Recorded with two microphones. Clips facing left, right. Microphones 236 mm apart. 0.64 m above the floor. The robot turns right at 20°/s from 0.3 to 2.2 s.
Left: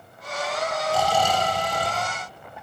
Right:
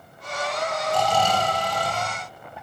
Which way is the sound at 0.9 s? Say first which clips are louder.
Even; 5° left (ahead or behind).